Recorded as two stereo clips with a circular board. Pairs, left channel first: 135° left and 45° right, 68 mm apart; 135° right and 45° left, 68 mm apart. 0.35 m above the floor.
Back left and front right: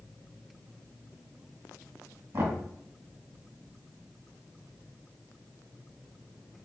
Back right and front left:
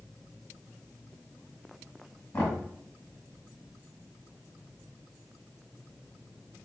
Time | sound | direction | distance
2.3 | knocking | 75° right | 1.9 m